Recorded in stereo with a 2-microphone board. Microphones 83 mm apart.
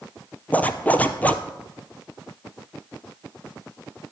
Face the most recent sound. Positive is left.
turn(degrees=20)  # may be behind; listen again after turning